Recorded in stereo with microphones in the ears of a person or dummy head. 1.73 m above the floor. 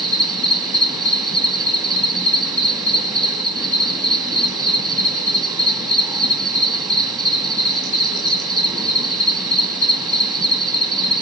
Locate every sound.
0.0 s an insect: 15° right (ahead or behind), 2 m